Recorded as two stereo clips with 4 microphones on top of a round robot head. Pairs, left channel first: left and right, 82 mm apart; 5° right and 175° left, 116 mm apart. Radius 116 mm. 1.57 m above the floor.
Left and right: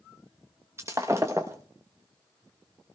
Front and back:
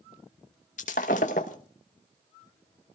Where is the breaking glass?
20° right, 1.0 m.